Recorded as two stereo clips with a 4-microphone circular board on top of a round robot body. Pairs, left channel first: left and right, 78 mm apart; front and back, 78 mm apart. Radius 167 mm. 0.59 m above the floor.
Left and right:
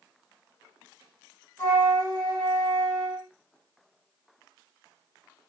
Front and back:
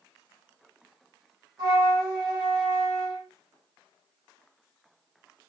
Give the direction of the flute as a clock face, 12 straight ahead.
7 o'clock.